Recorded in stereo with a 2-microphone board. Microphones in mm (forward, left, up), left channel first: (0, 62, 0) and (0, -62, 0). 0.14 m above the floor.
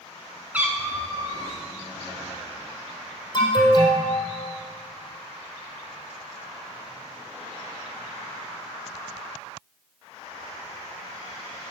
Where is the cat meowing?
10° right (ahead or behind), 1.6 m; by 1.6 s 35° right (ahead or behind), 2.5 m.